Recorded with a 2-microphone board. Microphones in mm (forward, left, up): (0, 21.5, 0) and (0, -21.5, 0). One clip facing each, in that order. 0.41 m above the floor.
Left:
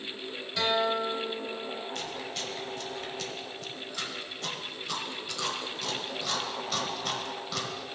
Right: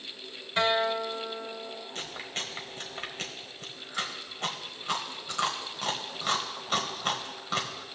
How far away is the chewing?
About 1.2 m.